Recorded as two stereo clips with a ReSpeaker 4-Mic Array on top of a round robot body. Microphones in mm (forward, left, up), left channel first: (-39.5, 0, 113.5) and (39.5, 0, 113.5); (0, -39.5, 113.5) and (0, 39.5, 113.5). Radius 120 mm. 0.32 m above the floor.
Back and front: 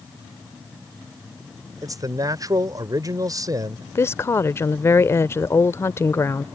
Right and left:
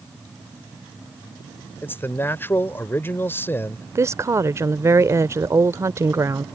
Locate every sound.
1.8 s a man speaking: 30° right
4.0 s a woman speaking: 130° left